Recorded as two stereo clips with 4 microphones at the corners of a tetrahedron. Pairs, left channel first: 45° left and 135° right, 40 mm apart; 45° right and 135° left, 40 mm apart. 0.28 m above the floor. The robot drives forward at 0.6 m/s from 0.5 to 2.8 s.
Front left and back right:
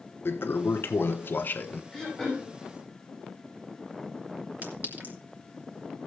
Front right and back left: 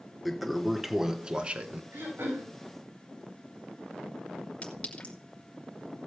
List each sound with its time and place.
0.2 s a toilet flushing: 45° left, 1.2 m; by 1.8 s 90° left, 0.9 m
1.9 s throat clearing: 130° left, 7 m
4.6 s a clink: 100° right, 3 m